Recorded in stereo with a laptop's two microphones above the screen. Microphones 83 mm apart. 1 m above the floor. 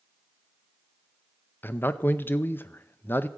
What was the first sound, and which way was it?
A man speaking, 25° left (ahead or behind).